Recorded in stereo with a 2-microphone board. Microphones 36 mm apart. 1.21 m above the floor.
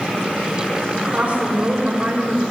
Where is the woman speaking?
40° right (ahead or behind), 5 m.